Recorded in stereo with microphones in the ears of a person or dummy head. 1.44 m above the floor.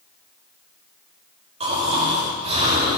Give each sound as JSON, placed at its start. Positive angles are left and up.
{"t": 1.6, "sound": "snoring", "side_deg": -30, "distance_m": 7.0}